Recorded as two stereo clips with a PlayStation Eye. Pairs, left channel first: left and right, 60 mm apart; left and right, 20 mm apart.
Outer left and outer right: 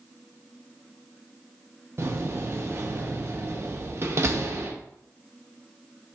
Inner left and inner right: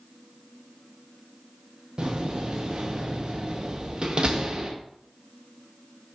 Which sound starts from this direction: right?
A door slam, at 2.0 s.